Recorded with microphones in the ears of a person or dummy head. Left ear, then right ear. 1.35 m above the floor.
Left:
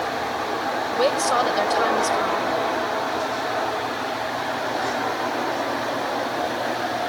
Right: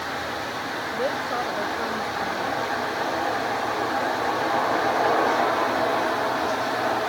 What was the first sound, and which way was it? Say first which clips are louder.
A woman speaking: left 7 dB; 70° left (ahead or behind).